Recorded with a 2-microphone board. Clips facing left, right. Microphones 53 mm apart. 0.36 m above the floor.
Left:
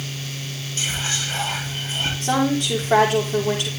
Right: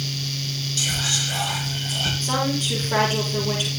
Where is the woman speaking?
75° left (ahead or behind), 9.5 m.